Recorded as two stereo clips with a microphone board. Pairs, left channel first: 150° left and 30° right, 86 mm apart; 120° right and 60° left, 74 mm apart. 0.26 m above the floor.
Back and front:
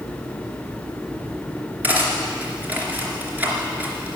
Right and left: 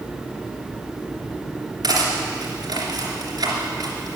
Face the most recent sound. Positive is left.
turn(degrees=40)